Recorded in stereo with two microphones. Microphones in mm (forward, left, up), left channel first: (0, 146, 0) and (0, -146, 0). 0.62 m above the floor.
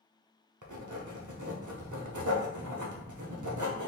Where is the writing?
85° right, 0.7 m.